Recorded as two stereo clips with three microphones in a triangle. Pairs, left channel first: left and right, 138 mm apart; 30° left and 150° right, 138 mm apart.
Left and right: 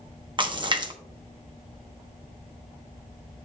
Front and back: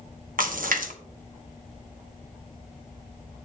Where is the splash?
145° right, 1.0 m.